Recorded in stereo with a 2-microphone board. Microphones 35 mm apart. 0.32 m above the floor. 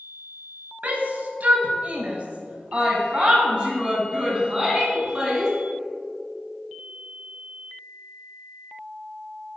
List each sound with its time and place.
0.8 s a shout: 55° right (ahead or behind), 2 m; by 5.5 s 20° right (ahead or behind), 3.5 m